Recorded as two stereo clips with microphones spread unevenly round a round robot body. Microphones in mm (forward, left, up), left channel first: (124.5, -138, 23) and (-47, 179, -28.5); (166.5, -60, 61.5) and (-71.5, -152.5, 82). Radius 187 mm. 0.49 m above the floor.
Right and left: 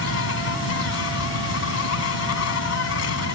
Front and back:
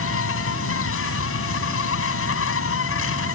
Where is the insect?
10° right.